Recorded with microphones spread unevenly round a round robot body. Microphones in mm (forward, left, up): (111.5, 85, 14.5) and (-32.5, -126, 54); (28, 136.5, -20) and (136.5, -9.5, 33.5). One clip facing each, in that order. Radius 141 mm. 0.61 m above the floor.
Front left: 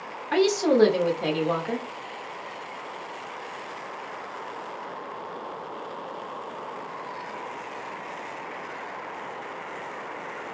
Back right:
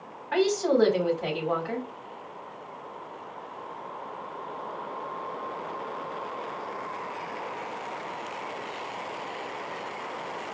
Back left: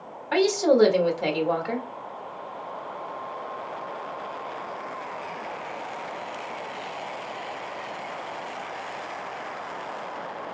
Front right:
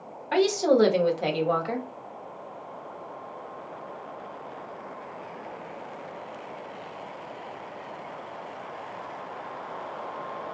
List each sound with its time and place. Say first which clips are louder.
0.3 s a woman speaking: front left 3 dB, back left 1 dB; 45° left, 1.6 m